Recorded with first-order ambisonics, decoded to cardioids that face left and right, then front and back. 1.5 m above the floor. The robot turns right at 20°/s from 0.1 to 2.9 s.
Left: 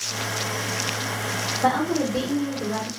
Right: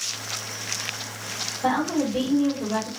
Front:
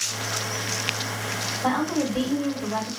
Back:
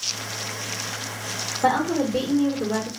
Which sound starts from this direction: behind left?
A woman speaking, at 1.6 s.